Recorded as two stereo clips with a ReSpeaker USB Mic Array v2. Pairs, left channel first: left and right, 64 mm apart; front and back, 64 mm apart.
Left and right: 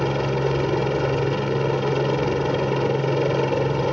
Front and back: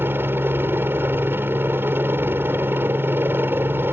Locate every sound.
0.0 s a helicopter: straight behind